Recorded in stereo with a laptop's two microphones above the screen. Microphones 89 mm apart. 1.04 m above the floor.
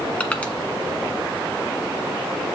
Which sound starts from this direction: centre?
Crushing, at 0.2 s.